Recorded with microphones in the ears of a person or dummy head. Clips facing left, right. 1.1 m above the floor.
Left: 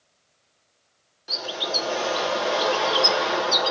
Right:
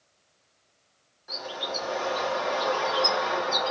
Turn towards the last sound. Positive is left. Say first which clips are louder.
# left 4 dB
turn(degrees=35)  # may be behind; listen again after turning